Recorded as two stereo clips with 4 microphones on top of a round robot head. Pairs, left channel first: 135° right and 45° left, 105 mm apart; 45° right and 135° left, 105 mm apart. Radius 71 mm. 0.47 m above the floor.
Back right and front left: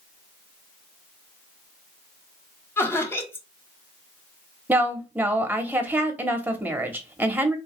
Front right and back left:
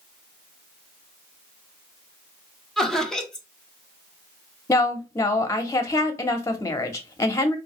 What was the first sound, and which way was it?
Laughter, 120° right.